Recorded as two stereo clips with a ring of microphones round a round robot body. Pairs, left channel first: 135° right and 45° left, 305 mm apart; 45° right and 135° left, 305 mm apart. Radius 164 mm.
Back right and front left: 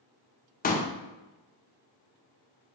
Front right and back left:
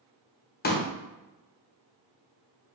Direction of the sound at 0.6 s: 85° right.